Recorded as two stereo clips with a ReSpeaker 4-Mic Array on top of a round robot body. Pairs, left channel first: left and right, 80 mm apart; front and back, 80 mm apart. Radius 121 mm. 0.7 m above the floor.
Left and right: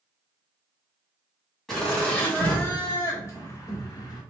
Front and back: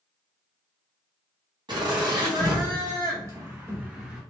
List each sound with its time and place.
1.7 s laughter: straight behind, 1.4 m; by 4.2 s 100° left, 1.2 m